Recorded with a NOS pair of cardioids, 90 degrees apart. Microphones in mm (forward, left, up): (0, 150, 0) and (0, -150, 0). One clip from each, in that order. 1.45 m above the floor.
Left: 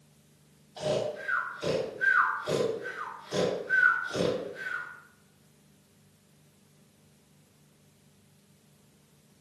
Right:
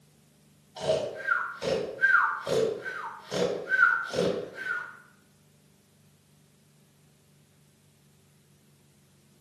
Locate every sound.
0.8 s snoring: 30° right, 1.8 m